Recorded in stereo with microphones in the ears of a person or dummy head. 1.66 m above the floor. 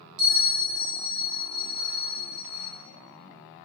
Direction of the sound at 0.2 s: 85° right.